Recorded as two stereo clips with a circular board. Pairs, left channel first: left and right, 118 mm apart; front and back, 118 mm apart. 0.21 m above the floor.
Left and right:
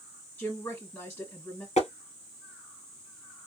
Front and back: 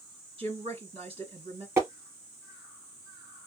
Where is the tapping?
115° left, 2.0 m.